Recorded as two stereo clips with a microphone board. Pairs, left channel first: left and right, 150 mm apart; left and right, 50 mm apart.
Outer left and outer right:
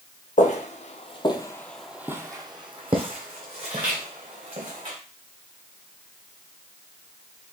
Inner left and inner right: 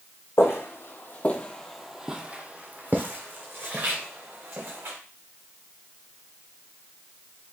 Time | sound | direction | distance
0.4 | footsteps | 55° left (ahead or behind) | 1.0 m